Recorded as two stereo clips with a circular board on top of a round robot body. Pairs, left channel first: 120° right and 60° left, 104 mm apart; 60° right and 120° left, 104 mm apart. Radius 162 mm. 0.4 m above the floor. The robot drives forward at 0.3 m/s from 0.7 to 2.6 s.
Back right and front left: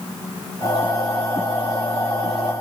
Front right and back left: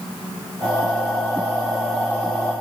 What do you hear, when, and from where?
Only background noise.